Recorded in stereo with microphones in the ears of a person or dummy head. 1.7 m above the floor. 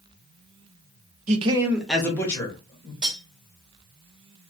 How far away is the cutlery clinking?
About 1.8 m.